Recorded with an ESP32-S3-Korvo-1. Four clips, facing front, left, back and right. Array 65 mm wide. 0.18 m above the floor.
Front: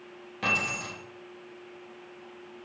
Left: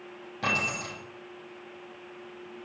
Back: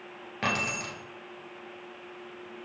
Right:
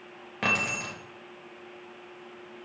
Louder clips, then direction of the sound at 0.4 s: Right 1 dB, even; 130° right.